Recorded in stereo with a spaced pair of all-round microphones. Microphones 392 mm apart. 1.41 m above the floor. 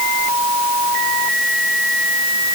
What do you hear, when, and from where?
Only background noise.